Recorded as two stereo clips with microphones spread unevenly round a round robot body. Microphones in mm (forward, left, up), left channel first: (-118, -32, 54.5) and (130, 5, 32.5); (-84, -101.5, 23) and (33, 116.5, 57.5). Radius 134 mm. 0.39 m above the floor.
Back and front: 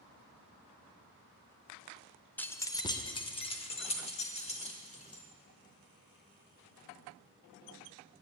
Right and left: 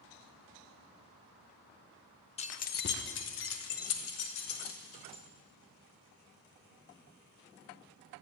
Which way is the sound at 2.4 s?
85° right.